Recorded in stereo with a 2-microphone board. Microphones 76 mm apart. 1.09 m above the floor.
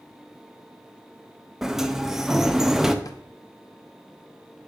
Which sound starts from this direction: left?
A drawer, at 3.0 s.